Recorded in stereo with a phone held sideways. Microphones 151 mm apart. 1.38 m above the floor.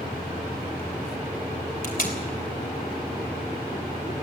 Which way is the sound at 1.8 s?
70° left (ahead or behind).